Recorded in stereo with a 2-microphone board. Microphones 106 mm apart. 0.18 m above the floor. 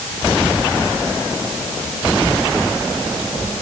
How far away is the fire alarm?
No fire alarm in this recording.